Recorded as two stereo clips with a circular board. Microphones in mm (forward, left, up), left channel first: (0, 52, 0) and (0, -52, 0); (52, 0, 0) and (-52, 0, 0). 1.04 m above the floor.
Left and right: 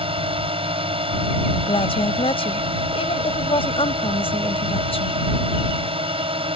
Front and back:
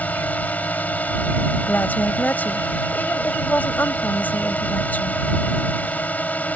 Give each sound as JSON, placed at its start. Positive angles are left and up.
{"t": 0.0, "sound": "a drone", "azimuth_deg": -75}
{"t": 1.7, "sound": "a woman speaking", "azimuth_deg": 75}